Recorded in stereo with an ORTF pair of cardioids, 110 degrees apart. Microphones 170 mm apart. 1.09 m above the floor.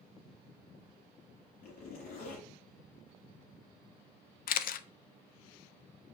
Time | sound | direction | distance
1.6 | a zipper | 65° left | 5.5 m
4.5 | a camera shutter | 60° left | 0.7 m